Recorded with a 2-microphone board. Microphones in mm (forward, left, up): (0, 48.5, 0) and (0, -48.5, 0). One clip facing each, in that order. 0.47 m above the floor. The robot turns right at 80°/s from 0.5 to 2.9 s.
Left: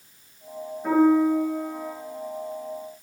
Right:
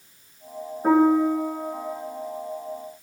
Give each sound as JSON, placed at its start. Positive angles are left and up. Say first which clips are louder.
{"t": 0.8, "sound": "a piano", "louder": "right 1 dB", "azimuth_deg": -45, "distance_m": 5.5}